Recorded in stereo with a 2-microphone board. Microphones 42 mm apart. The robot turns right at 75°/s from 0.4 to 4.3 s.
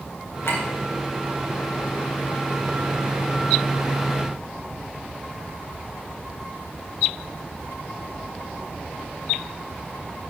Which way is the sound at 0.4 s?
70° left (ahead or behind).